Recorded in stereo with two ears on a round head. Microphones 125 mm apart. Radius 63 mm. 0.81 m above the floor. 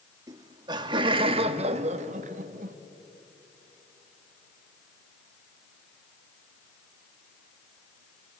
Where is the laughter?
25° right (ahead or behind), 1.5 m; by 2.8 s 60° right (ahead or behind), 1.1 m.